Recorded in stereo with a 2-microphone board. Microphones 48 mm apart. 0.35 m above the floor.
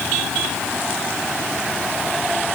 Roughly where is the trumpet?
I don't hear a trumpet.